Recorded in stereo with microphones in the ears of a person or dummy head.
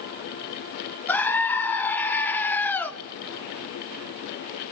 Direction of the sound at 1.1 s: 10° left (ahead or behind).